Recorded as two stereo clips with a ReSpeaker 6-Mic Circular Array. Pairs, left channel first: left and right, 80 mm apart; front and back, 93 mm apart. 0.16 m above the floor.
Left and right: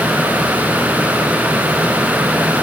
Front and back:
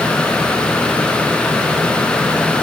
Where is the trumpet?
I don't hear a trumpet.